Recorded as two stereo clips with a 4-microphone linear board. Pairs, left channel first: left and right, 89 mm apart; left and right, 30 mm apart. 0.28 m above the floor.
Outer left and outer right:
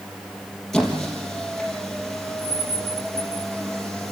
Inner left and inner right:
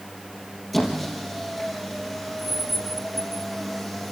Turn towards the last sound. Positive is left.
turn(degrees=5)  # may be behind; listen again after turning